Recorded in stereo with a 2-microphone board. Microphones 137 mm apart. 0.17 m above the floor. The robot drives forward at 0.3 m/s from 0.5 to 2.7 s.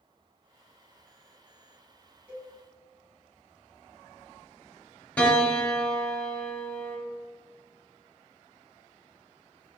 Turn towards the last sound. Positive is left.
turn(degrees=10)  # may be behind; listen again after turning